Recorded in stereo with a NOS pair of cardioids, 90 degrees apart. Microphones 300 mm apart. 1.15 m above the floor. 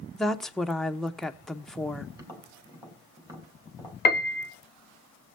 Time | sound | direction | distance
0.1 | a woman speaking | straight ahead | 0.9 m
2.2 | tapping | 10° right | 3 m
4.0 | a piano | 35° left | 0.6 m